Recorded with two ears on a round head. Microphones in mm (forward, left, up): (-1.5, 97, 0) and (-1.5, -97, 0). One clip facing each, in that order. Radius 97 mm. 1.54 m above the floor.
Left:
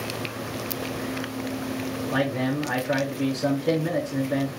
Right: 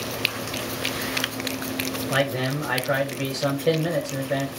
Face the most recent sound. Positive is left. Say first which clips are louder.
# left 1 dB
turn(degrees=-85)